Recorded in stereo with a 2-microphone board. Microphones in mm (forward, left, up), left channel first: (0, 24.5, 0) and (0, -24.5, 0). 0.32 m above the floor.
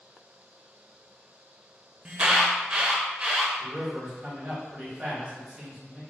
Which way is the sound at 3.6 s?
30° right (ahead or behind).